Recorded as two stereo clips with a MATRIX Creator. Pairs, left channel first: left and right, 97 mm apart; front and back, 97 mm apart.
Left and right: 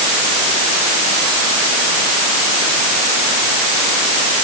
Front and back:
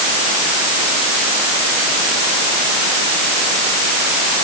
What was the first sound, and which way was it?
Only background noise.